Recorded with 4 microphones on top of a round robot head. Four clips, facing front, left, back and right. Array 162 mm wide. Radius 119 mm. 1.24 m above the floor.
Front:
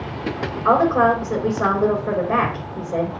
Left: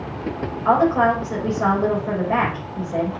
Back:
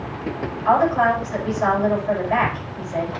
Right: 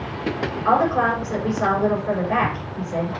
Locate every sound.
0.7 s a woman speaking: straight ahead, 5.5 m